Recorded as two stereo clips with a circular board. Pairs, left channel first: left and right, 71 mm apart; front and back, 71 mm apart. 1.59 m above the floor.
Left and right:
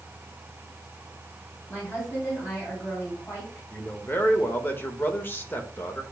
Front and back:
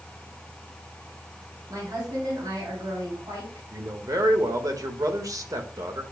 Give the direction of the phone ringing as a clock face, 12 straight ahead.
I don't hear a phone ringing.